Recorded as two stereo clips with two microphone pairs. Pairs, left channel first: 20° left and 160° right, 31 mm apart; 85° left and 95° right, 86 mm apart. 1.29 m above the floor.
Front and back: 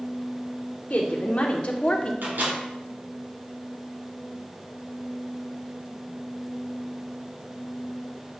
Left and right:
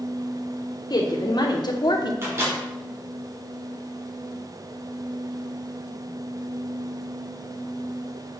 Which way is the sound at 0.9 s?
45° left.